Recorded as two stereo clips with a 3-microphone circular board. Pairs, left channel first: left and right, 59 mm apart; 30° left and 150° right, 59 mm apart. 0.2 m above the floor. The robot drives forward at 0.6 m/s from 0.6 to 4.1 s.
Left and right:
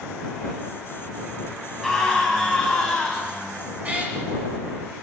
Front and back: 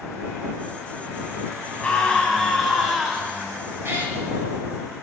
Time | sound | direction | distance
1.8 | a scream | 10° left | 1.2 m
3.8 | a cat meowing | 140° right | 0.9 m